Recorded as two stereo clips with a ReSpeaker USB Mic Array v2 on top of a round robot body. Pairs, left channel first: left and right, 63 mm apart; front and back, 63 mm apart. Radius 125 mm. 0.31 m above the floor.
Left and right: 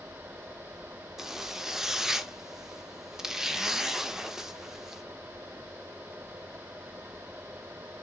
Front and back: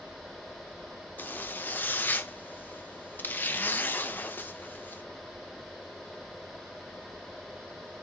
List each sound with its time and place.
1.2 s a zipper: 10° right, 0.8 m